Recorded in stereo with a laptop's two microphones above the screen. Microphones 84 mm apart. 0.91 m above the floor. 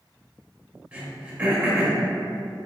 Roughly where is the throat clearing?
Centre.